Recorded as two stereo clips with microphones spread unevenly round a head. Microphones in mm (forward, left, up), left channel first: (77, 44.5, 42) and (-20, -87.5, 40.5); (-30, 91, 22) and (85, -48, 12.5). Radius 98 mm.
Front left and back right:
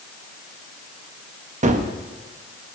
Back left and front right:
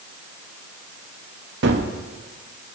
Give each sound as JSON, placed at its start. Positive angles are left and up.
{"t": 1.6, "sound": "a gunshot", "azimuth_deg": -80, "distance_m": 1.3}